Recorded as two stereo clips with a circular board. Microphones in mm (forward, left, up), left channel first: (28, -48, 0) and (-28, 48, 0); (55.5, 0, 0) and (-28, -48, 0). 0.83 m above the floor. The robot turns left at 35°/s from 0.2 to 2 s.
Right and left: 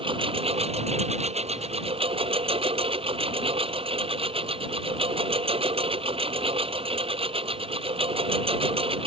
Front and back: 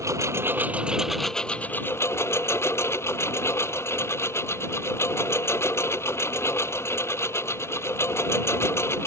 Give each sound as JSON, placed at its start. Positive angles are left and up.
{"t": 0.0, "sound": "a lawn mower", "azimuth_deg": 155}